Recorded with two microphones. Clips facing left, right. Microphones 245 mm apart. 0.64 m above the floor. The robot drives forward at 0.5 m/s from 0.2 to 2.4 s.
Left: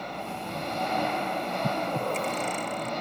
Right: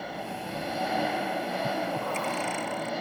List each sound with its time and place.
0.0 s an engine running: 5° right (ahead or behind)
1.6 s breathing: 35° left (ahead or behind); by 2.9 s 40° left (ahead or behind)